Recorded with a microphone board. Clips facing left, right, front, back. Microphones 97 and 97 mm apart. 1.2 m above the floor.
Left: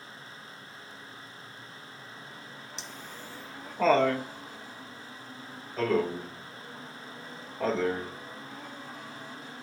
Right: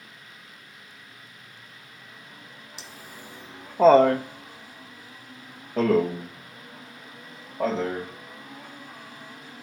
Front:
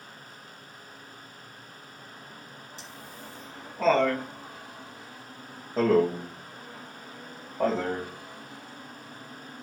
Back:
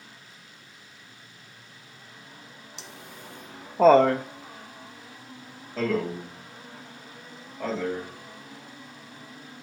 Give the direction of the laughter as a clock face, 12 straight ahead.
6 o'clock.